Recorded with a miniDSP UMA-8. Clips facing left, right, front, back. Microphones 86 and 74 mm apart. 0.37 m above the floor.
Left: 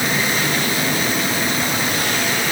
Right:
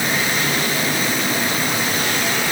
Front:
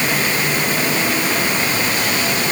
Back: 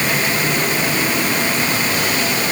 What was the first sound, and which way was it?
Only background noise.